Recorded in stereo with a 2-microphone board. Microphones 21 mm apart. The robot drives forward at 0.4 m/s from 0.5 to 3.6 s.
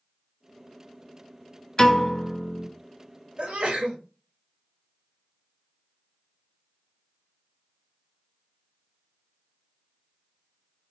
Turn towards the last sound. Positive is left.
turn(degrees=-70)  # may be behind; listen again after turning